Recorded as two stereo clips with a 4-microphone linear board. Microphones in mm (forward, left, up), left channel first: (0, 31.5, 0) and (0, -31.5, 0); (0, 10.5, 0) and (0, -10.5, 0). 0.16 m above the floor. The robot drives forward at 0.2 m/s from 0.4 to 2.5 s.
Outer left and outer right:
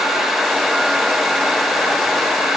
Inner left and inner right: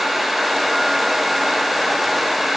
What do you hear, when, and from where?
Only background noise.